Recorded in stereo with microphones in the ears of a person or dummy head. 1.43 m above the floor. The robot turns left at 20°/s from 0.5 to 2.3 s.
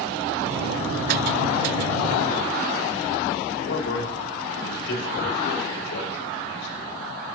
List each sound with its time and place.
3.6 s a man speaking: 85° left, 3 m